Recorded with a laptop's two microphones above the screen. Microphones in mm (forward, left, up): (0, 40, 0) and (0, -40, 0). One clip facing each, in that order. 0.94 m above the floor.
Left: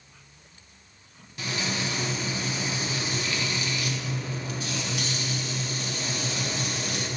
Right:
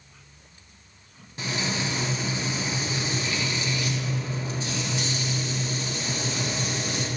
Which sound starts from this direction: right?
Frying, at 1.4 s.